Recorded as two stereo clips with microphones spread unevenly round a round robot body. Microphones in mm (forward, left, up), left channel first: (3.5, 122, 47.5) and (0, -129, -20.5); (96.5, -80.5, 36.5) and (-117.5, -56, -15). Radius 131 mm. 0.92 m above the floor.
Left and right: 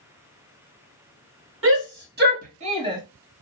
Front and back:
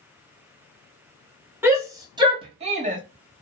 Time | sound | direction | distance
1.6 | a shout | 115° right | 1.6 m